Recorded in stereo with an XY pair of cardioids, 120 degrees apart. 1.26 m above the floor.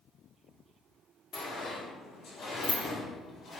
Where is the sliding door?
55° left, 1.8 m.